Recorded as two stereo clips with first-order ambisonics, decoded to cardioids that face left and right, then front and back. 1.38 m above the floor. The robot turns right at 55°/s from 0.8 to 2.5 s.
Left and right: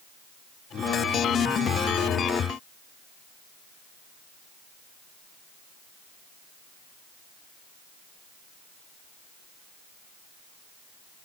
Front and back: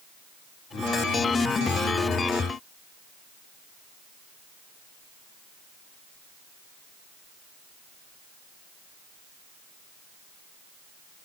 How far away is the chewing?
I don't hear chewing.